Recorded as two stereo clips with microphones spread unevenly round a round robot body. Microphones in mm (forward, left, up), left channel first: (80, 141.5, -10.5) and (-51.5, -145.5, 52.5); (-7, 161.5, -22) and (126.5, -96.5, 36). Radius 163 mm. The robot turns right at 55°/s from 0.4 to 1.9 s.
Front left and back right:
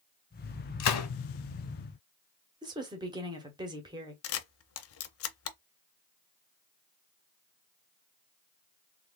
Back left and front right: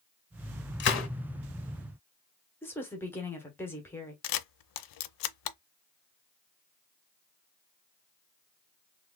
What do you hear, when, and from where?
0.8 s a gunshot: 75° left, 1.0 m; by 1.1 s 90° left, 1.0 m
2.6 s a woman speaking: 160° left, 1.0 m
4.2 s a camera shutter: 110° left, 0.5 m